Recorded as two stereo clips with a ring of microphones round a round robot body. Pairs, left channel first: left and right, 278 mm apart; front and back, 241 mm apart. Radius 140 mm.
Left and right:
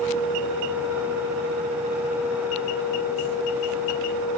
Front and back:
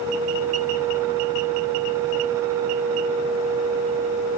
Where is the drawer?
No drawer in this recording.